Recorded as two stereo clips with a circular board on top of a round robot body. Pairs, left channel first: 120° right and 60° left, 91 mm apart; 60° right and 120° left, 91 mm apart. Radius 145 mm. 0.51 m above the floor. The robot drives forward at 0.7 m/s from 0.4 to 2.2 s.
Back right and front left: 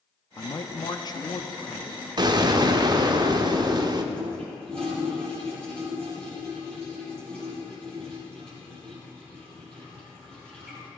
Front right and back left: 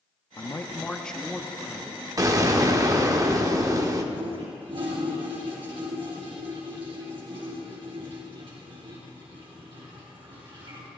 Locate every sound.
0.4 s a man speaking: 95° right, 0.8 m; by 2.1 s 160° right, 1.4 m
2.2 s an explosion: 80° left, 1.3 m
4.1 s a toilet flushing: 160° left, 3 m